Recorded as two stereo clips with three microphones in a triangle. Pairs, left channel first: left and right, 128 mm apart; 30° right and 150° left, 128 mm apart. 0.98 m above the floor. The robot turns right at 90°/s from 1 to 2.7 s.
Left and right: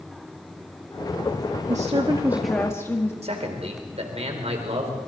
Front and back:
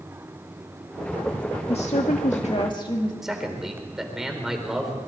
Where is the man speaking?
125° right, 4 m.